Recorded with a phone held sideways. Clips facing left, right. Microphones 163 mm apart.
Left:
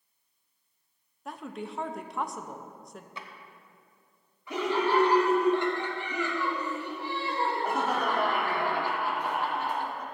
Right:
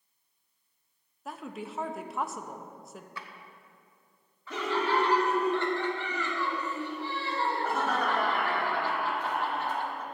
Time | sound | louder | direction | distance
1.2 | a woman speaking | left 1 dB | centre (ahead or behind) | 0.6 m
3.1 | a drawer | left 1 dB | 25° left (ahead or behind) | 1.0 m
4.5 | laughter | left 3 dB | 15° left (ahead or behind) | 2.5 m